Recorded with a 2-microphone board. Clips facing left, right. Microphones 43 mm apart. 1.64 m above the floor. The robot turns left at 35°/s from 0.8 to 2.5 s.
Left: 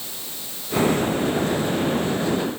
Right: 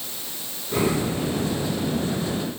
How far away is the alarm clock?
I don't hear an alarm clock.